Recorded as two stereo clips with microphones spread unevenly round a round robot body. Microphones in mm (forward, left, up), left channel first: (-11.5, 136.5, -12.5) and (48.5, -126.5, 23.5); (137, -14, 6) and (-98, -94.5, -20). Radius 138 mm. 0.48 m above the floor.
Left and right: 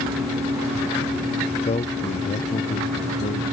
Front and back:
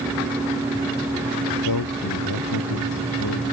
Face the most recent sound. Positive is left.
turn(degrees=40)